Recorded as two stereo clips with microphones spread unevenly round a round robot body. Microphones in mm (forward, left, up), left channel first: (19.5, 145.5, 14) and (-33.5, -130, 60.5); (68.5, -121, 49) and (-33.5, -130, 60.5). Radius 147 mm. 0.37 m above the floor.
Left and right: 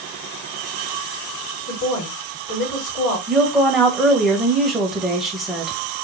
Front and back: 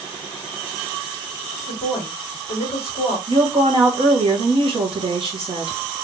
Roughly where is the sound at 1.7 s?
Left.